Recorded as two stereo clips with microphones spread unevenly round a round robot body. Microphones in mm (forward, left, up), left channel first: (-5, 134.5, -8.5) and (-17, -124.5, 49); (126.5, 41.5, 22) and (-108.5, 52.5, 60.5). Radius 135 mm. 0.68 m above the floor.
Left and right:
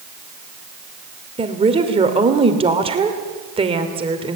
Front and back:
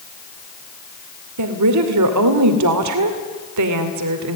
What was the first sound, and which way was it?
A woman speaking, 165° right.